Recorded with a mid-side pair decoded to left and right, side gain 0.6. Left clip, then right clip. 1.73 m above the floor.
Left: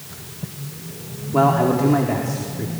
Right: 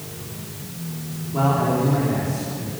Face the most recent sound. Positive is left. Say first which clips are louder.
# left 4 dB
turn(degrees=45)